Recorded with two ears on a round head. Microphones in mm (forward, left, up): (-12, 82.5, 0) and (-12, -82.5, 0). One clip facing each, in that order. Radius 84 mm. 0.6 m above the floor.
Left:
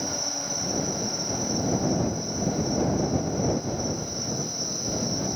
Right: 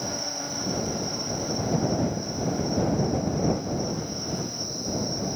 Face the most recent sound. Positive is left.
turn(degrees=15)  # may be behind; listen again after turning